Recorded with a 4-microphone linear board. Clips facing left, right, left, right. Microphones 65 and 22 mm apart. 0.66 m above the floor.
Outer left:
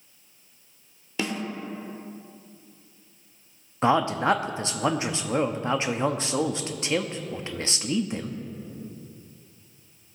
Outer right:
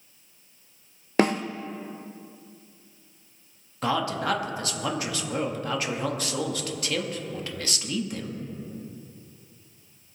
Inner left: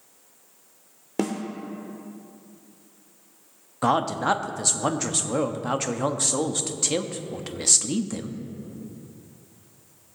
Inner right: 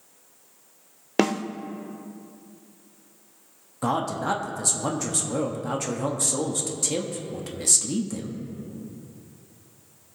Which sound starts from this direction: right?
A snare drum, at 1.2 s.